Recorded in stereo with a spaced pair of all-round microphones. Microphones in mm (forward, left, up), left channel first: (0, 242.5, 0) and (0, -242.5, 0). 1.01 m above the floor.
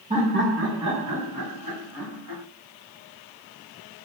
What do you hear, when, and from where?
0.1 s laughter: 15° right (ahead or behind), 0.8 m; by 2.4 s 40° right (ahead or behind), 1.8 m